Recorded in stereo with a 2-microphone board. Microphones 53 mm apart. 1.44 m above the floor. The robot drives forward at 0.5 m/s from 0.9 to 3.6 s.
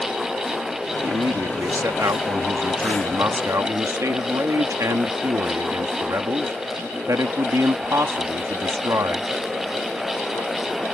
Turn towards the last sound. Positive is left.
turn(degrees=-75)  # may be behind; listen again after turning